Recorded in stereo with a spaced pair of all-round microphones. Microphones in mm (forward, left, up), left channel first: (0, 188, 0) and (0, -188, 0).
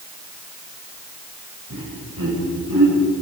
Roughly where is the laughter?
Right.